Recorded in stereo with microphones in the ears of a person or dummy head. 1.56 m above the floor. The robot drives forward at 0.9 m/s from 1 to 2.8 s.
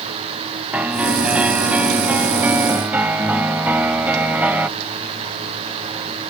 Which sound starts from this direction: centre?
A piano, at 0.7 s.